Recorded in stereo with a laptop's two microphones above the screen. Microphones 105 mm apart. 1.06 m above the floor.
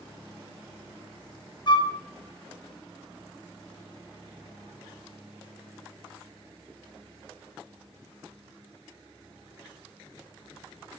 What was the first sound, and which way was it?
A flute, 45° left (ahead or behind).